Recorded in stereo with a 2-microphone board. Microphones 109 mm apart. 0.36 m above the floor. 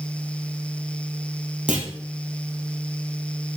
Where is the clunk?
10° right (ahead or behind), 4 m.